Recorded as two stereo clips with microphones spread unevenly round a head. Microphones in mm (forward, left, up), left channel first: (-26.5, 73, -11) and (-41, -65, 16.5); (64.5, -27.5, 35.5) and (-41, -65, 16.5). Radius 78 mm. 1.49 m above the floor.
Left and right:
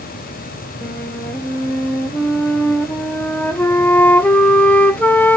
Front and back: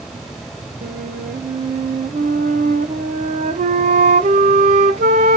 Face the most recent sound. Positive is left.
turn(degrees=165)